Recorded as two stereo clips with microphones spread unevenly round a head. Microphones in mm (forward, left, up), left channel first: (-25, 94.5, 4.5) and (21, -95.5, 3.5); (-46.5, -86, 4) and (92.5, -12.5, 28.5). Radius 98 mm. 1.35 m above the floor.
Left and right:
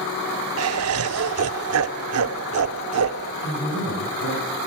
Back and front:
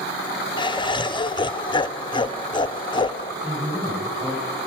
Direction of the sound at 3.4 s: 100° left.